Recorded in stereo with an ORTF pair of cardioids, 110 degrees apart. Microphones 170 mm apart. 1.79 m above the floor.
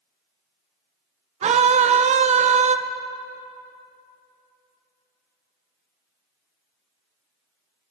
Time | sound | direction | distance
1.4 | a scream | 45° right | 1.4 m